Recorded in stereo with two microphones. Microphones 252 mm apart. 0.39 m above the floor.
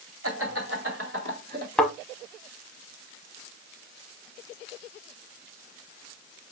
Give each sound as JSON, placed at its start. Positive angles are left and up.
{"t": 0.2, "sound": "laughter", "side_deg": -60, "distance_m": 2.5}
{"t": 1.8, "sound": "a thud", "side_deg": 5, "distance_m": 0.8}